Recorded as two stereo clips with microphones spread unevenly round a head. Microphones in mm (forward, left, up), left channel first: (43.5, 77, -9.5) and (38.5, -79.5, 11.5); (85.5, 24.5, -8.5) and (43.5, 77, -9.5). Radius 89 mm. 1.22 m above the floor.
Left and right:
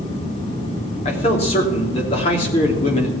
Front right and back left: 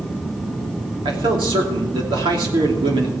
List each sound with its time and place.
1.1 s a man speaking: 150° left, 3 m